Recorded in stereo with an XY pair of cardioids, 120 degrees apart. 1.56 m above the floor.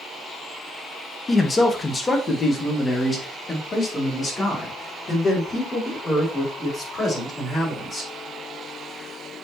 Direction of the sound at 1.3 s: 20° left.